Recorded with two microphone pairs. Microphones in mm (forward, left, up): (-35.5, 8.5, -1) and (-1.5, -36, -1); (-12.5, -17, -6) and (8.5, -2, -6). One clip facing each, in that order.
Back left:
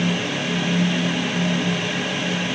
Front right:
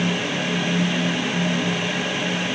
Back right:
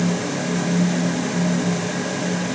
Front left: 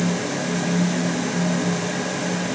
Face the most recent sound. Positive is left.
No sound to turn to.